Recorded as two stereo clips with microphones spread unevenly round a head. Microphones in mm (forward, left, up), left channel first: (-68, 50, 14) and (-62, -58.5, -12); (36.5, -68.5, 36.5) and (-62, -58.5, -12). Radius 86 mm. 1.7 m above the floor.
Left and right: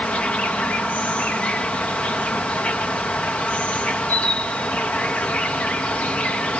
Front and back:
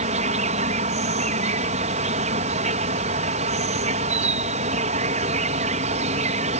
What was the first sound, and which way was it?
An insect, 170° left.